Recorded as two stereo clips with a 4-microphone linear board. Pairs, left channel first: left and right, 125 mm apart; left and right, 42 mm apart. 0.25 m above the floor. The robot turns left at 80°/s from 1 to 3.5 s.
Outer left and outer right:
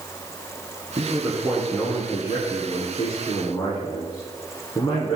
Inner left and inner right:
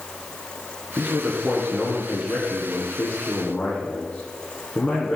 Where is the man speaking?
140° right, 2 m; by 5.2 s 20° left, 2 m.